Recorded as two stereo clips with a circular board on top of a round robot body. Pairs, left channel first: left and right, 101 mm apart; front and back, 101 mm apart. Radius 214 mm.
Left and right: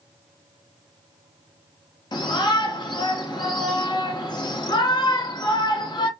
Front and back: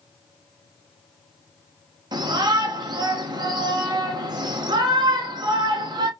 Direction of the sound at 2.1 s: 135° left.